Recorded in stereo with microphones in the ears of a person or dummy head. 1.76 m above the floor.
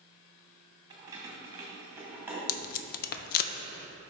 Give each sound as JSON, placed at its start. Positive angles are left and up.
{"t": 0.9, "sound": "keys jangling", "side_deg": -30, "distance_m": 1.5}
{"t": 2.5, "sound": "tape being pulled", "side_deg": 50, "distance_m": 0.5}